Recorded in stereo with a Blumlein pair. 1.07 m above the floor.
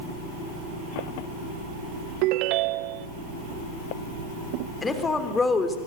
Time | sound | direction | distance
2.2 | a ringtone | 40° right | 0.7 m
4.8 | a woman speaking | 15° left | 3.5 m